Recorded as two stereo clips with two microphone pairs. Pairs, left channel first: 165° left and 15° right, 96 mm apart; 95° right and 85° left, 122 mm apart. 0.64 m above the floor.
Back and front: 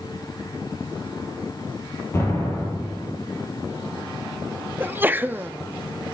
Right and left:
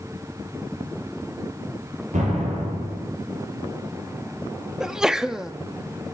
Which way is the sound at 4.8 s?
10° left.